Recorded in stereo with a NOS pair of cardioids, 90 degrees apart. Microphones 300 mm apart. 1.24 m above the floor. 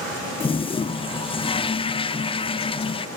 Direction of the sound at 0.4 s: 20° left.